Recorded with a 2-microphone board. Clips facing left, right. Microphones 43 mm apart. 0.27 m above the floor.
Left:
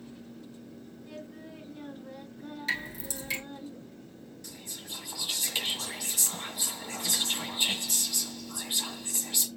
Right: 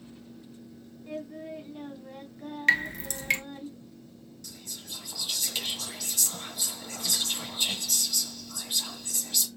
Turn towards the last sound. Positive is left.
turn(degrees=10)  # may be behind; listen again after turning